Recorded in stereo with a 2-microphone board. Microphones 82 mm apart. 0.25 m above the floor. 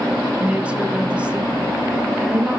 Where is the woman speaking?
15° right (ahead or behind), 1.7 m.